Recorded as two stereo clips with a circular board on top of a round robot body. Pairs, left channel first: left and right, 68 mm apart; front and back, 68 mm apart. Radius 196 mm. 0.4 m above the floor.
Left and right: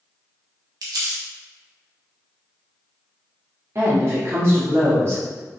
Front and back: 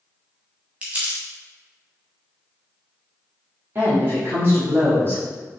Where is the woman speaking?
130° right, 1.6 m.